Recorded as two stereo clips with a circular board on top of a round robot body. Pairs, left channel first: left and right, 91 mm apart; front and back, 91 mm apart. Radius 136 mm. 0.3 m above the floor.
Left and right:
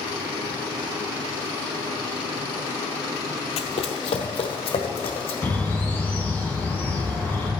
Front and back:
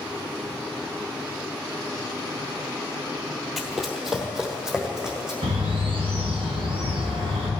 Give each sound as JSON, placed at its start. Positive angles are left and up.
{"t": 3.6, "sound": "running footsteps", "azimuth_deg": 90, "distance_m": 0.7}
{"t": 5.4, "sound": "a bird", "azimuth_deg": 160, "distance_m": 1.8}